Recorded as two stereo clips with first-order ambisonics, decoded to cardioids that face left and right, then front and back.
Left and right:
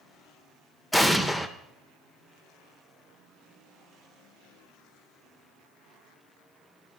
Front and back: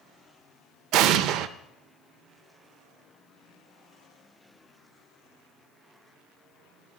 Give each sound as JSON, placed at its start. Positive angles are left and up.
{"t": 0.9, "sound": "an explosion", "azimuth_deg": 170, "distance_m": 0.6}